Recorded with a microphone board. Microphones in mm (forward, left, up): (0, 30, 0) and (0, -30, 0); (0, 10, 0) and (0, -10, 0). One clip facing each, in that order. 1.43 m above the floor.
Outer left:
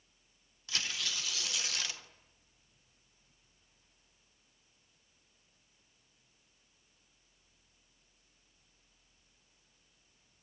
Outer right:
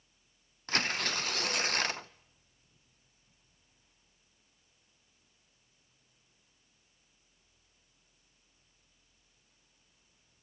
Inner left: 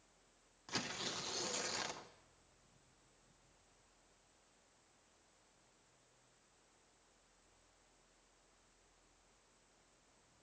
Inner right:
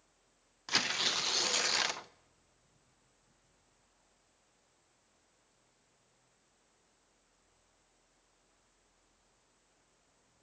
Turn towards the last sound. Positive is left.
turn(degrees=-50)  # may be behind; listen again after turning